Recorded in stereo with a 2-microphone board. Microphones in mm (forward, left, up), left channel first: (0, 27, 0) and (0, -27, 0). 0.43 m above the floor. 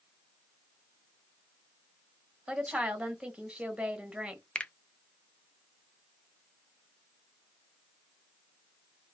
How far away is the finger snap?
About 0.5 m.